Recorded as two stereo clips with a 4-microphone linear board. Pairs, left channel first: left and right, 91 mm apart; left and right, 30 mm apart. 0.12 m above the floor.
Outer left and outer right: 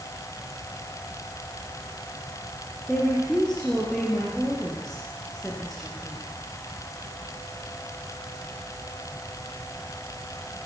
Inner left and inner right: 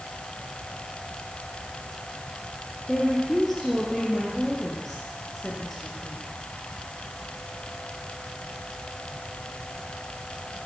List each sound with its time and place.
2.9 s a woman speaking: 5° left (ahead or behind), 3 m